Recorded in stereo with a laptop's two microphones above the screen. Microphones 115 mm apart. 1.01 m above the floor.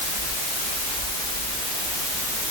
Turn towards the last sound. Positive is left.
No sound to turn to.